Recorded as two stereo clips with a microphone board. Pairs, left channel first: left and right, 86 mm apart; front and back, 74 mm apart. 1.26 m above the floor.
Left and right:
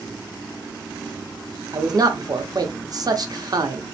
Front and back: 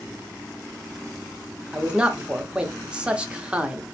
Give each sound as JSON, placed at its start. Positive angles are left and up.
{"t": 1.7, "sound": "a man speaking", "azimuth_deg": -110, "distance_m": 0.6}